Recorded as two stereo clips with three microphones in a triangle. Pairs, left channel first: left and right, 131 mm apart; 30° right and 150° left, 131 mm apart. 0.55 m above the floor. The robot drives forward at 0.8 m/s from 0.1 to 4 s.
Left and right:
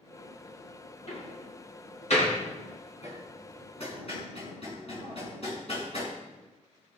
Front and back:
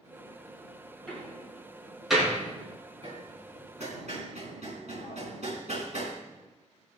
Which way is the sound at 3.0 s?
115° left.